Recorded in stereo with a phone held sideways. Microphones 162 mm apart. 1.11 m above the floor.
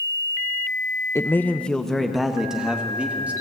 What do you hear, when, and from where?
1.1 s a man speaking: 20° left (ahead or behind), 0.8 m; by 3.3 s 10° right (ahead or behind), 2 m